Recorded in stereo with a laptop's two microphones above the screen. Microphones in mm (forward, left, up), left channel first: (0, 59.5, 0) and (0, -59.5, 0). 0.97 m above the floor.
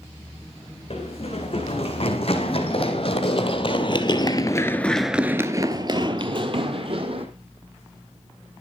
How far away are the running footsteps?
About 4.5 m.